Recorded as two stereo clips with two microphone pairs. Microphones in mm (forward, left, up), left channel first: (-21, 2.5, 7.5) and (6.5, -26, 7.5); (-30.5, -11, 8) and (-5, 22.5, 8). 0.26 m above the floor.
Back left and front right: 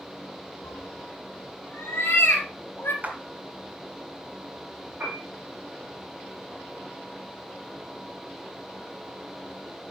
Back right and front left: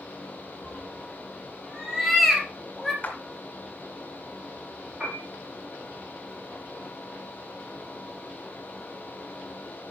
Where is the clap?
85° right, 2.5 m.